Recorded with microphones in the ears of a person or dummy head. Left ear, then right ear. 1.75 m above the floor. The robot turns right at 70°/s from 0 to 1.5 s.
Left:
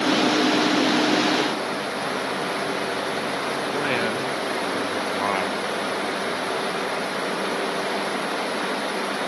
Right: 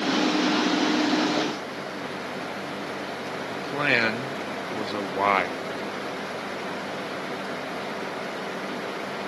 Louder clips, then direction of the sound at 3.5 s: Right 3 dB; 20° right (ahead or behind).